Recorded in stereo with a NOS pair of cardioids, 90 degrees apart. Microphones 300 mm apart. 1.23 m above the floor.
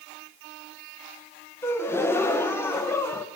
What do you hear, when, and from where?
1.6 s a gasp: 10° left, 0.7 m